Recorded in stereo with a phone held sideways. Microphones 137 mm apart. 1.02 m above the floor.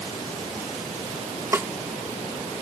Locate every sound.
1.5 s a snare drum: 20° right (ahead or behind)